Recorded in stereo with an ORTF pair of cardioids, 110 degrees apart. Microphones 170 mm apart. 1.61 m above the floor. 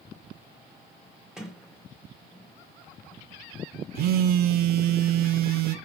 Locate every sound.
1.4 s a sliding door: 5° right, 1.5 m
4.0 s a phone buzzing: 65° right, 0.7 m